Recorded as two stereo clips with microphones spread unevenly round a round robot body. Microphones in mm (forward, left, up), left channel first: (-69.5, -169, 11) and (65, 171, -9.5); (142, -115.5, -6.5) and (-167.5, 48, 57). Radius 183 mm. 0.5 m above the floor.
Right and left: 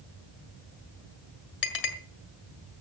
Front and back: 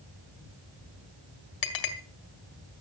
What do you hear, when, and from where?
1.6 s a clink: 50° right, 2.5 m